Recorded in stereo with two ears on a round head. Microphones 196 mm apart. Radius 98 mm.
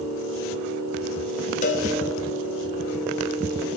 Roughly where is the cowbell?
Left.